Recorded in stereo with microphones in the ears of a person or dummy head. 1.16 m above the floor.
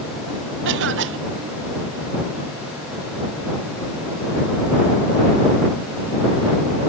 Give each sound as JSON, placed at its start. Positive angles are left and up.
{"t": 0.7, "sound": "a cough", "side_deg": -55}